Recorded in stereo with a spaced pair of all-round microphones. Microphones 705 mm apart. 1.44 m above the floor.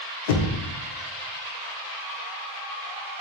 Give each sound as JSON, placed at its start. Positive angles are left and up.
{"t": 0.3, "sound": "knocking", "side_deg": 80, "distance_m": 0.5}